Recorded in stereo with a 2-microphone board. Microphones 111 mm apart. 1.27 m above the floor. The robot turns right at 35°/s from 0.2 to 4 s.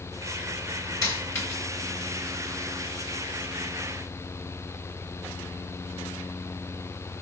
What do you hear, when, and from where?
1.0 s a dropped coin: 30° left (ahead or behind), 2.5 m; by 1.6 s 10° left (ahead or behind), 2.5 m